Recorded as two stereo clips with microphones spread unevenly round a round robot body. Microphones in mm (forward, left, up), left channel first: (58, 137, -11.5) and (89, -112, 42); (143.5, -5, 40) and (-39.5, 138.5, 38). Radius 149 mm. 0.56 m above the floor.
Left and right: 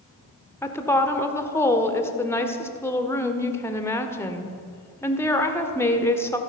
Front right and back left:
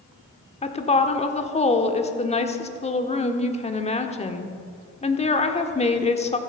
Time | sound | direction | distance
0.6 | a woman speaking | 25° left | 1.5 m